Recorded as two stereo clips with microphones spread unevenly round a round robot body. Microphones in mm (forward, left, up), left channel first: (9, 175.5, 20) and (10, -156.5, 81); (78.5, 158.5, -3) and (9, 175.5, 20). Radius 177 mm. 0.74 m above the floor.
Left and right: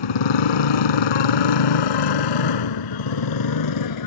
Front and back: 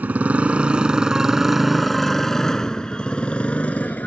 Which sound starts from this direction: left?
A motorcycle, at 0.0 s.